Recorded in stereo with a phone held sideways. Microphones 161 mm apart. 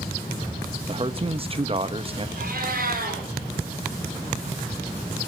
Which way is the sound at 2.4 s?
70° right (ahead or behind).